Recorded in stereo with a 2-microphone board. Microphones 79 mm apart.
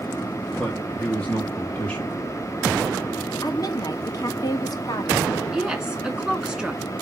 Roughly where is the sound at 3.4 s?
Left.